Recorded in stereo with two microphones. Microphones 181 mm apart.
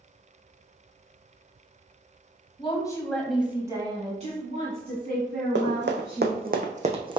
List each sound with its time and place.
2.6 s a woman speaking: 30° left (ahead or behind), 1.1 m; by 6.5 s 70° right (ahead or behind), 2.5 m
5.5 s running footsteps: 80° right, 1.0 m; by 7.2 s 25° right (ahead or behind), 0.8 m